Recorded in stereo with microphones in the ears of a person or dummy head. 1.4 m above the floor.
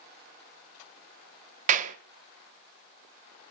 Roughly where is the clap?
Right.